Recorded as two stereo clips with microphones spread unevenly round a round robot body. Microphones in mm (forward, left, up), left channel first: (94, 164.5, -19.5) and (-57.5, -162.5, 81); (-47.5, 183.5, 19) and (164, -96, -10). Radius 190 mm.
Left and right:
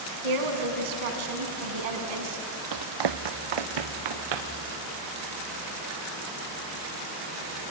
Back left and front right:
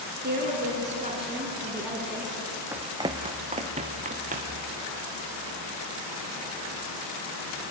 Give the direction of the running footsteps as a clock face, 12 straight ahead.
5 o'clock.